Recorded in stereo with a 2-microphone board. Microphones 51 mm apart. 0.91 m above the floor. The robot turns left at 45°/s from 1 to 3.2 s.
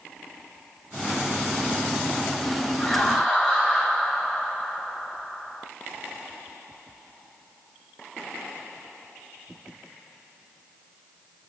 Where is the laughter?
15° left (ahead or behind), 3.5 m; by 5.7 s centre (ahead or behind), 3.5 m.